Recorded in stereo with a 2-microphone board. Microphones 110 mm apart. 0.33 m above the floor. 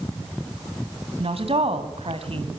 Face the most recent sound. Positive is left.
turn(degrees=-60)  # may be behind; listen again after turning